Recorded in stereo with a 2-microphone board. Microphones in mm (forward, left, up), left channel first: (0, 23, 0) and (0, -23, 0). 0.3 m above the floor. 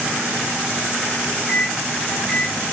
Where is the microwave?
5° right (ahead or behind), 1.6 m.